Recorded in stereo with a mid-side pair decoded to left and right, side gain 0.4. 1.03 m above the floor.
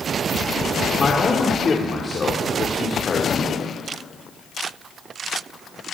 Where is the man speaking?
40° left, 2.5 m.